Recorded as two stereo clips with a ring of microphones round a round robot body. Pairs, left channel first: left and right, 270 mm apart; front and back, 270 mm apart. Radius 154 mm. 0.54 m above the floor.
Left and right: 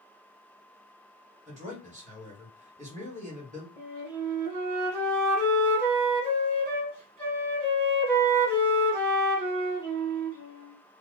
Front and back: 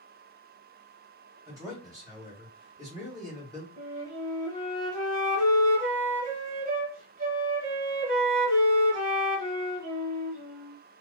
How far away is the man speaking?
About 1.4 m.